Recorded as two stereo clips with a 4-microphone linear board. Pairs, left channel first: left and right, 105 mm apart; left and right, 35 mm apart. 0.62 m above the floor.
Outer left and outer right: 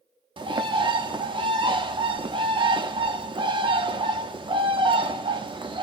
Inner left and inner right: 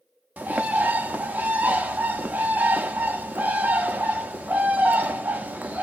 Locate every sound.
0.4 s a bird: 50° right (ahead or behind), 0.6 m